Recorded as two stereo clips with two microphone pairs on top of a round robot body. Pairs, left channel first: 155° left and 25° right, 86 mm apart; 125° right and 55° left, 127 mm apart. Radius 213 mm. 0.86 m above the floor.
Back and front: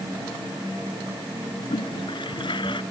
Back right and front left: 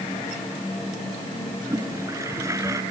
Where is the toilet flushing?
120° left.